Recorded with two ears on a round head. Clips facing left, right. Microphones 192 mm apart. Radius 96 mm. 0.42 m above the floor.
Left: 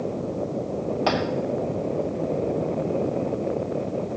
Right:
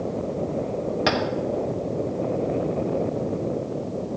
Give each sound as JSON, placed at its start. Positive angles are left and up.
{"t": 1.1, "sound": "tapping", "side_deg": -25, "distance_m": 1.7}